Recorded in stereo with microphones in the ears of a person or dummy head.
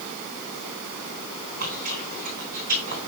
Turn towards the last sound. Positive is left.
turn(degrees=-45)  # may be behind; listen again after turning